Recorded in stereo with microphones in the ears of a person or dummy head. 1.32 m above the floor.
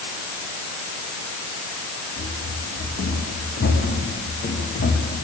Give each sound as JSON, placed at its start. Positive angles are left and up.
{"t": 2.2, "sound": "running footsteps", "side_deg": 75, "distance_m": 5.5}